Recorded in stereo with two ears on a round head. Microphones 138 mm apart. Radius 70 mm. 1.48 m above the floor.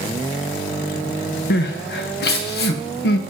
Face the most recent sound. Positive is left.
turn(degrees=75)  # may be behind; listen again after turning